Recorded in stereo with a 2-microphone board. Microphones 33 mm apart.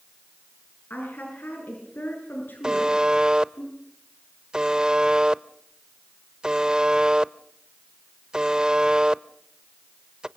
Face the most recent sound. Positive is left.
turn(degrees=-25)  # may be behind; listen again after turning